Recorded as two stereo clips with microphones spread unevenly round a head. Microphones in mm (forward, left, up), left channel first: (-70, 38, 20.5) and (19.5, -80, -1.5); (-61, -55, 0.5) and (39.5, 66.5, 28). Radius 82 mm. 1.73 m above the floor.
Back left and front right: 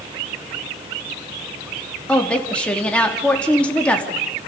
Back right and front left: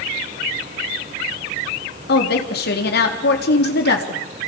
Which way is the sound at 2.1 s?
150° right.